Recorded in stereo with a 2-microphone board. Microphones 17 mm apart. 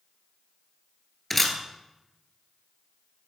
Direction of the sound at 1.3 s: 10° left (ahead or behind).